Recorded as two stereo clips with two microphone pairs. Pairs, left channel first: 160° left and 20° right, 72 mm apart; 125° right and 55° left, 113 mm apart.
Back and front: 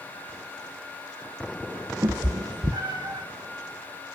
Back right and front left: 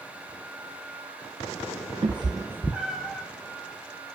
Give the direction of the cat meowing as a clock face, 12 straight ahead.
12 o'clock.